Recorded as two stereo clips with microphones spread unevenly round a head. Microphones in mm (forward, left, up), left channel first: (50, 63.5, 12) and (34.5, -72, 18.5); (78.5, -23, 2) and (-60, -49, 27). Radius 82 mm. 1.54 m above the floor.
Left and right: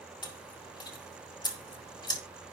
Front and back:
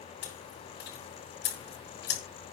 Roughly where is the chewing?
Ahead left.